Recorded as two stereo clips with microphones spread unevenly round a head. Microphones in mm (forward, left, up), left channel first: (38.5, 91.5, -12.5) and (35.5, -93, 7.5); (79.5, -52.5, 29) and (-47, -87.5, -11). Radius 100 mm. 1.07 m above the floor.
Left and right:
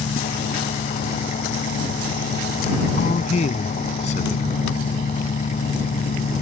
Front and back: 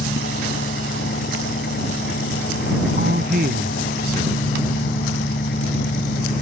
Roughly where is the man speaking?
Behind left.